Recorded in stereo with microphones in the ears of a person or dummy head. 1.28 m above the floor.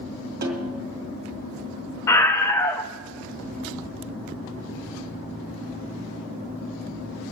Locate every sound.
0.4 s a snare drum: 45° right (ahead or behind), 2 m
2.1 s a scream: 20° left (ahead or behind), 1.0 m